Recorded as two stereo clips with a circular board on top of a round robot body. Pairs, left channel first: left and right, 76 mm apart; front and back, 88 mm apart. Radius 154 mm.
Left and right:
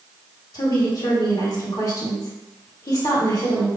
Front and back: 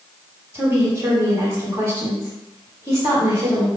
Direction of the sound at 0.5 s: 120° left.